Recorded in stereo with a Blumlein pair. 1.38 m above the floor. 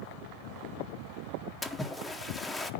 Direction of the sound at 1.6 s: 10° left.